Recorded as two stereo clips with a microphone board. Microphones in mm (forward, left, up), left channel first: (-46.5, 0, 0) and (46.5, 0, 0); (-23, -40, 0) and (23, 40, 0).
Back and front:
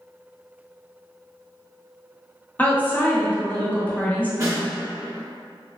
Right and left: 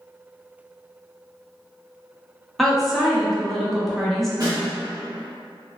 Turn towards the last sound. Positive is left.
turn(degrees=50)